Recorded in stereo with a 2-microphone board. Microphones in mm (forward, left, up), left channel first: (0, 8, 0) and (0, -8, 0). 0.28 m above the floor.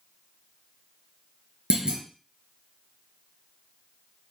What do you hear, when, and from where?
1.7 s a clunk: 55° right (ahead or behind), 1.8 m